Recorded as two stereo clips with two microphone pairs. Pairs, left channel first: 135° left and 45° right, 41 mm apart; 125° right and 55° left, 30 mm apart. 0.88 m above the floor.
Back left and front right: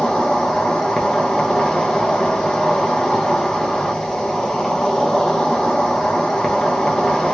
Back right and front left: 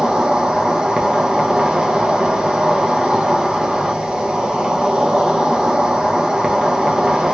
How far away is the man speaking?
No man speaking in this recording.